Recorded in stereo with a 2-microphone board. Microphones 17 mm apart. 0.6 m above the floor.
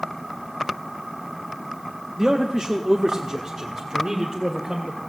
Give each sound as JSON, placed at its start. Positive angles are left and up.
{"t": 2.2, "sound": "a man speaking", "side_deg": -45, "distance_m": 0.9}